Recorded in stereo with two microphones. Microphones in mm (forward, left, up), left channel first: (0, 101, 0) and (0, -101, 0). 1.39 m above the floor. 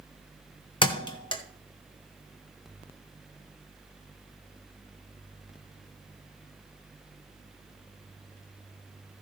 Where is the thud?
25° left (ahead or behind), 1.2 m.